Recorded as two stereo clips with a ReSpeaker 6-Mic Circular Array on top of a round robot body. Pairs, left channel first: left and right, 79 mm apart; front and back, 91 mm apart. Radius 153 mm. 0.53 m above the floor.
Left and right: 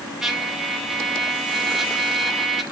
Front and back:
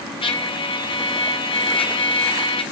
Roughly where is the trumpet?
Ahead.